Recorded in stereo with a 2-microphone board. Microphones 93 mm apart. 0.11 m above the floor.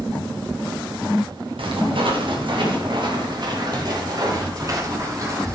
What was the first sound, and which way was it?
Footsteps, 75° right (ahead or behind).